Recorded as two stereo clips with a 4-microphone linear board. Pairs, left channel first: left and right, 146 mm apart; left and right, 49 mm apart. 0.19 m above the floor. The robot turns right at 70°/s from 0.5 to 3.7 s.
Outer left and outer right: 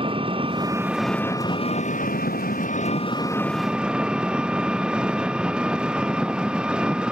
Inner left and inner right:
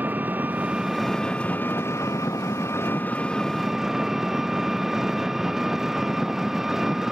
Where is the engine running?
35° right; by 7.1 s 175° right.